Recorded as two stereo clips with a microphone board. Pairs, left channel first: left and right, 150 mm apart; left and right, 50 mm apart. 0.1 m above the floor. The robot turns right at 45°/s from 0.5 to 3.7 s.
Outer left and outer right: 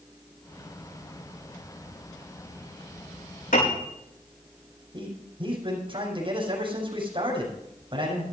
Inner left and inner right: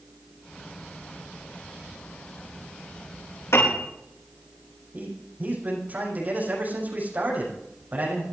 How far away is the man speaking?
About 6 m.